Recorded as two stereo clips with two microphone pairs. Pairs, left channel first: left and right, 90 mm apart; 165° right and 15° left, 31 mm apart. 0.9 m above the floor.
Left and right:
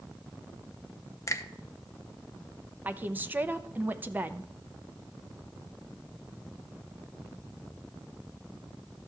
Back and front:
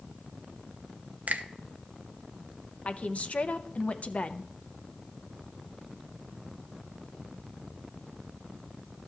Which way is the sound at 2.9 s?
150° right.